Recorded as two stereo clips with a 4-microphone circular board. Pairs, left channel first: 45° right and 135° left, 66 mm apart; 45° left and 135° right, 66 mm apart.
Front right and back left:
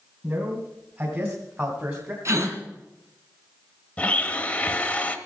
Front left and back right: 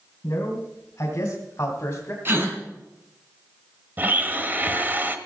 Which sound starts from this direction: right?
A blender, at 4.0 s.